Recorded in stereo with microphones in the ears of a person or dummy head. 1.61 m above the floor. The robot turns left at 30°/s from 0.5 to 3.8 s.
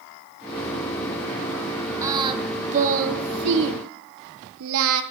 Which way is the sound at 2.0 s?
20° right (ahead or behind).